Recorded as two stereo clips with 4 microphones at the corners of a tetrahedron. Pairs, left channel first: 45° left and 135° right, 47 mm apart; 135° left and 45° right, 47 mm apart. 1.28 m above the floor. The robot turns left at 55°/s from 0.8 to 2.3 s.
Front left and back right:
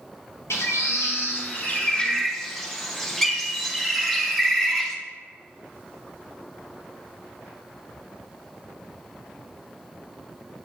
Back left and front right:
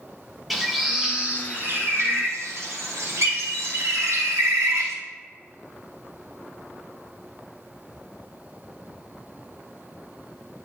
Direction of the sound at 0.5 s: 45° left.